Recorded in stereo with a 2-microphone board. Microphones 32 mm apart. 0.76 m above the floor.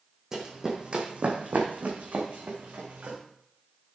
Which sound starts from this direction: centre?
Running footsteps, at 0.3 s.